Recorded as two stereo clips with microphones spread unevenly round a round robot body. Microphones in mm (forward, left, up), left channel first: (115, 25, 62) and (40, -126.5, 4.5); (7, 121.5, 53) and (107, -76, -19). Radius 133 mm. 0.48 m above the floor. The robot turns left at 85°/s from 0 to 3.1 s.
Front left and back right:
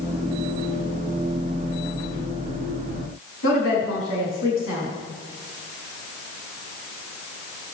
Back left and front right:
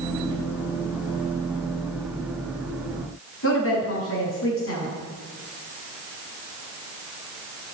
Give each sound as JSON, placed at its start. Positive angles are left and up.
{"t": 3.4, "sound": "a woman speaking", "azimuth_deg": 85, "distance_m": 5.5}